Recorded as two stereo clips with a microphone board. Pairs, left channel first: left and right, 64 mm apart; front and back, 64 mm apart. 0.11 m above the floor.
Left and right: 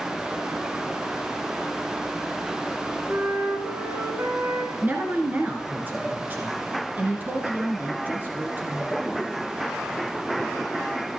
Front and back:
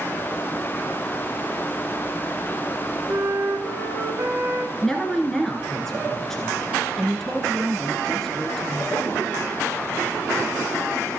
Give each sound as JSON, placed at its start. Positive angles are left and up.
{"t": 3.1, "sound": "a flute", "azimuth_deg": -140, "distance_m": 3.5}
{"t": 4.8, "sound": "a woman speaking", "azimuth_deg": -75, "distance_m": 1.6}